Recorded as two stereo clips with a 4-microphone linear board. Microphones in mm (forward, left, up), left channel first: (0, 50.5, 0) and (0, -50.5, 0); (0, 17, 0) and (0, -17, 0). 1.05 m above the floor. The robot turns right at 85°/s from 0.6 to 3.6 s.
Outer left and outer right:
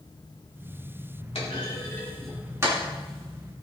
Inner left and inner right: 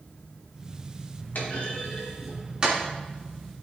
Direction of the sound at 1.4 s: 70° left (ahead or behind).